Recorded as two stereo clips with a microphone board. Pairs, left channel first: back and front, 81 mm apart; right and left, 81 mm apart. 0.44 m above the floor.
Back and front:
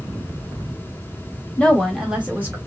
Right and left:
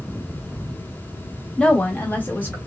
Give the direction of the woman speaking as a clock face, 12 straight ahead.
5 o'clock.